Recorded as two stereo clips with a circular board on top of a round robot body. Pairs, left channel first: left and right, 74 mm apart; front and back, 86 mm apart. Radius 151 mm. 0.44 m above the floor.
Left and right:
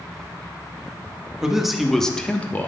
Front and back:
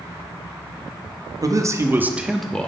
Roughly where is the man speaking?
Behind.